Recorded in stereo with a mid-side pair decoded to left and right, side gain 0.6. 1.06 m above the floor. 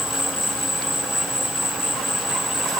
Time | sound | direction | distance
0.0 | an insect | straight ahead | ?